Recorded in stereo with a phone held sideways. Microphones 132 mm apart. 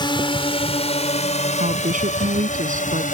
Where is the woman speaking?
75° right (ahead or behind).